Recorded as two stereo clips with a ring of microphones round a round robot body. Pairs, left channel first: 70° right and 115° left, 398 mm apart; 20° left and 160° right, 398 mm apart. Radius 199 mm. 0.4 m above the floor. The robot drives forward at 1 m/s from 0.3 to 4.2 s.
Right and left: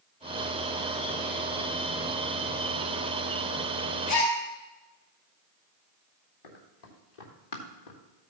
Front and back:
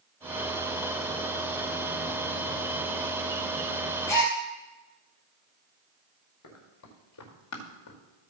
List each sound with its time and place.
4.1 s a gasp: 60° right, 3.5 m
6.4 s running footsteps: 35° right, 3.5 m; by 8.0 s 30° right, 3 m